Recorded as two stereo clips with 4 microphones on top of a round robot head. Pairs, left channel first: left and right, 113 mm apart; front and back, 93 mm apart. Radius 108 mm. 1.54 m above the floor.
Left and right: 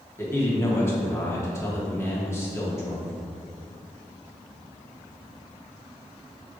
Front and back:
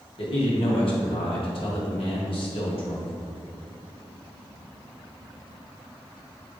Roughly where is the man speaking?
Ahead.